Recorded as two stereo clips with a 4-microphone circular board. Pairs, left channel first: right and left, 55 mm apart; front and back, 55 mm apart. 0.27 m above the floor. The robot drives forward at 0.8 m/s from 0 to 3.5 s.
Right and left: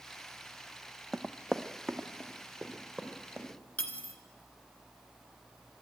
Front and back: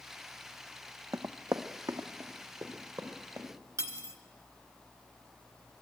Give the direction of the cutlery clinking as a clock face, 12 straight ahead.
5 o'clock.